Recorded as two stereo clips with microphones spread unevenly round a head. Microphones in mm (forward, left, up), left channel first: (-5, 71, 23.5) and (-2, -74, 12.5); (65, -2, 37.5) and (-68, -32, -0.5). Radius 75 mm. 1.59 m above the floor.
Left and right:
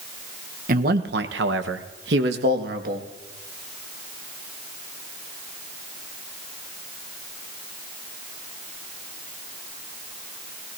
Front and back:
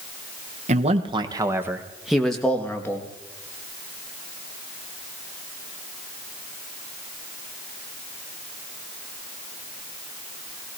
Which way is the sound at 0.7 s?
125° right.